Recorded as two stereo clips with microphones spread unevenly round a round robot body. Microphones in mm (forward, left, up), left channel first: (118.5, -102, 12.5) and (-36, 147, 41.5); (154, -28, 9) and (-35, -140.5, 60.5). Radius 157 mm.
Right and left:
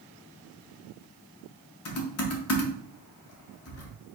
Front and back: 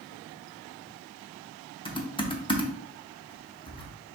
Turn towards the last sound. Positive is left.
turn(degrees=-30)